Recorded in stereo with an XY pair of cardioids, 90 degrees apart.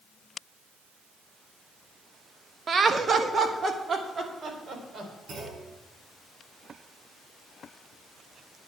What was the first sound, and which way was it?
Laughter, 45° right.